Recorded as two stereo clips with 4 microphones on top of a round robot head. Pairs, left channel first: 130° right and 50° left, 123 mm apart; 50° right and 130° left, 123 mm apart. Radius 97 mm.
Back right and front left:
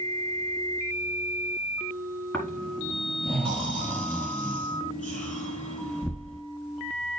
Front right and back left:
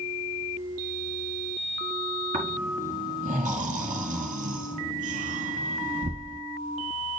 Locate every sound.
2.3 s snoring: 150° left, 3.5 m